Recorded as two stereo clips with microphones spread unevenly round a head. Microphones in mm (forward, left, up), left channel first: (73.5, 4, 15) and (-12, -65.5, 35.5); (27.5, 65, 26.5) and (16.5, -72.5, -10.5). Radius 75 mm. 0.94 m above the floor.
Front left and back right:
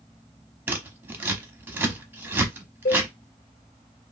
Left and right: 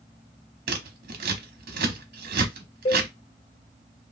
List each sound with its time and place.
0.7 s scissors: 70° right, 0.8 m
2.9 s a cowbell: 45° left, 1.0 m